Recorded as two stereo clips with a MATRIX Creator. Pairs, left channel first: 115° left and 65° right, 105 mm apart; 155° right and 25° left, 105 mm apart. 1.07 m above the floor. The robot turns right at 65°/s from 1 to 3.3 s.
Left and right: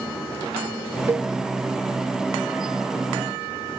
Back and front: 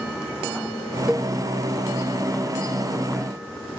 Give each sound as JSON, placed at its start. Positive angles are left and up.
{"t": 1.1, "sound": "a cowbell", "azimuth_deg": -55}